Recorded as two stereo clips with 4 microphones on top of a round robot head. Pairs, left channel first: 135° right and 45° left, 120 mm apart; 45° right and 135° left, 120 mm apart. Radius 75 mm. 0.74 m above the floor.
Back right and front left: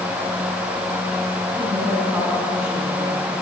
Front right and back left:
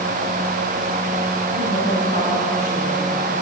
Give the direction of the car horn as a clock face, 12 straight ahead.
No car horn in this recording.